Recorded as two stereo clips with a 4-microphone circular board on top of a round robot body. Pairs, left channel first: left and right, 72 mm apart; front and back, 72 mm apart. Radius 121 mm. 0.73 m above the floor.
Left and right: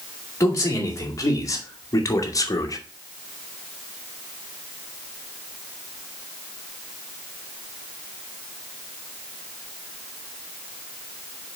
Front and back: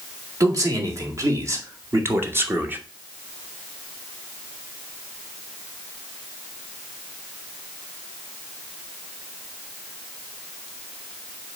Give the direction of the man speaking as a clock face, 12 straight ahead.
7 o'clock.